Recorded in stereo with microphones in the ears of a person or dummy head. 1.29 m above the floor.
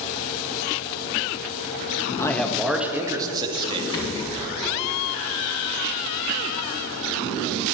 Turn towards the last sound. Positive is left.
turn(degrees=30)  # may be behind; listen again after turning